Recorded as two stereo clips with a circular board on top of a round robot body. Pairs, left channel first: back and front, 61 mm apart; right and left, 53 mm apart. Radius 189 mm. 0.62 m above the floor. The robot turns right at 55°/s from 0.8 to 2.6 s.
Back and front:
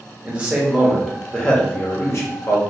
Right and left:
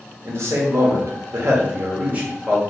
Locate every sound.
0.2 s a man speaking: 70° left, 1.3 m; by 2.6 s 170° left, 1.3 m